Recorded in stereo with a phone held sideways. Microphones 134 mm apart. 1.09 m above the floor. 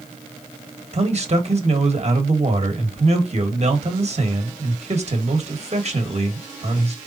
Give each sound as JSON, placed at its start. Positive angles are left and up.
{"t": 0.9, "sound": "a man speaking", "side_deg": -50, "distance_m": 1.4}